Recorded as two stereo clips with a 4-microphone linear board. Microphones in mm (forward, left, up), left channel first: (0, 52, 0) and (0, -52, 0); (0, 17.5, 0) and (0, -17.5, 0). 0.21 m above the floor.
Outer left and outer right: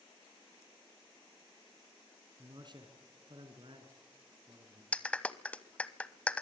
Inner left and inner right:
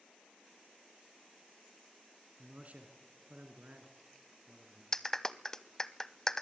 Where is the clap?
10° left (ahead or behind), 0.8 m.